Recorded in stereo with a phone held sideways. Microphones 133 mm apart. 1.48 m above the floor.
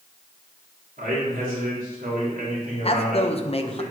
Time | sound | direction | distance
1.0 | a man speaking | 85° right | 3.5 m
2.8 | a man speaking | 45° left (ahead or behind) | 1.2 m